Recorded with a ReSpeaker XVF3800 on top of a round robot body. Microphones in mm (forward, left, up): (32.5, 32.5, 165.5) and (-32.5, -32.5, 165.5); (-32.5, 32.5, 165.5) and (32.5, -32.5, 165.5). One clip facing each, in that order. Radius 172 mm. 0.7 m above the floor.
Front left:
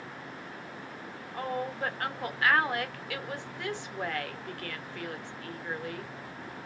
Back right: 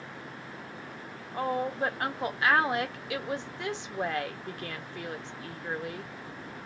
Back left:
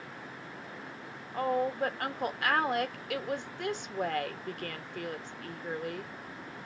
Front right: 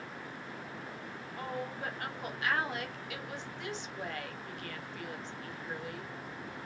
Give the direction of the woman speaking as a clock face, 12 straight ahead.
7 o'clock.